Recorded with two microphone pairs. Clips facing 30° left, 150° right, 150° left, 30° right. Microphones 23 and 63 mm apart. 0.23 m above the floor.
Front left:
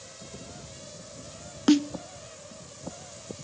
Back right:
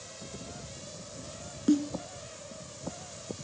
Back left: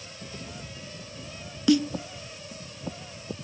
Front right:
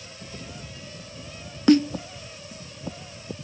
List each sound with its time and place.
1.7 s a snare drum: 15° left, 0.6 m